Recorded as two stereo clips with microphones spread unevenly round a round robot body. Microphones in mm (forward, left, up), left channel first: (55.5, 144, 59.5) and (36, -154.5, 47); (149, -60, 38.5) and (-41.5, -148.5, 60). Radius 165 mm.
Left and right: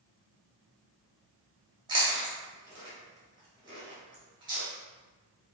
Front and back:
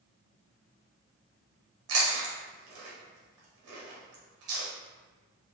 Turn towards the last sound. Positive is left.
turn(degrees=-170)